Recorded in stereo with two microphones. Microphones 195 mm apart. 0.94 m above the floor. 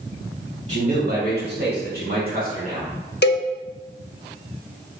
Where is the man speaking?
35° right (ahead or behind), 1.8 m; by 2.9 s 40° right (ahead or behind), 3 m.